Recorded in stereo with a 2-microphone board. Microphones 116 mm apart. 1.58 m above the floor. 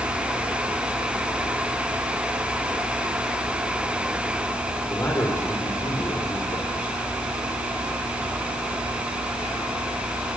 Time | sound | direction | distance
4.9 | a man speaking | 25° left (ahead or behind) | 4.5 m